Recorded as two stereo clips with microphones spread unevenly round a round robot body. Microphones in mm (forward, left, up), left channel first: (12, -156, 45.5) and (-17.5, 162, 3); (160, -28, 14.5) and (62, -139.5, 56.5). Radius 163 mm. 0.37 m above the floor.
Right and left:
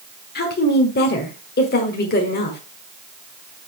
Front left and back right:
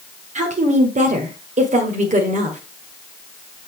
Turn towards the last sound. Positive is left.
turn(degrees=-130)